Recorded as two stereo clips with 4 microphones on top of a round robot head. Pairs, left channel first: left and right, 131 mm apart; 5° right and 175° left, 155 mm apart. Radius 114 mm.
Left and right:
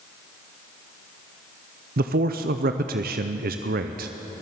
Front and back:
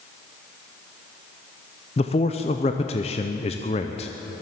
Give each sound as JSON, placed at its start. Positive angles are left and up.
{"t": 2.0, "sound": "a man speaking", "azimuth_deg": -65, "distance_m": 0.5}